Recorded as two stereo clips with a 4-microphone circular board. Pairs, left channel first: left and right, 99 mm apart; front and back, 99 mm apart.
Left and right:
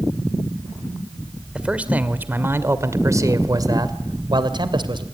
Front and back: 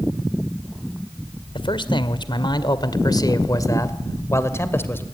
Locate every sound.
1.6 s a man speaking: 10° right, 2 m; by 5.0 s 65° right, 2.5 m